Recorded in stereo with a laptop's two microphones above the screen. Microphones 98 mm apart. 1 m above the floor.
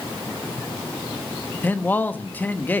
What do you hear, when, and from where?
1.6 s a man speaking: 20° left (ahead or behind), 1.0 m